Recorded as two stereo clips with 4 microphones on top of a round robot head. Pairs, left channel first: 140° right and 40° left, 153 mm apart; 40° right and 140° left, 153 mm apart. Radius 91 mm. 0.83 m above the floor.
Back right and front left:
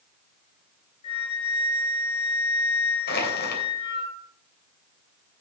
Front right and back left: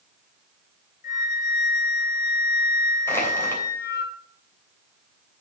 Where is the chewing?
No chewing in this recording.